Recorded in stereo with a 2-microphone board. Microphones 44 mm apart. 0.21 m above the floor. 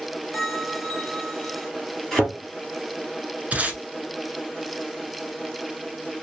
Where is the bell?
5° right (ahead or behind), 2 m.